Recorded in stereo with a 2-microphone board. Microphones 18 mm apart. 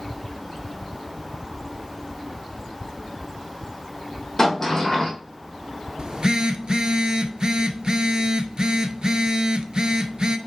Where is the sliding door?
30° left (ahead or behind), 1.7 m.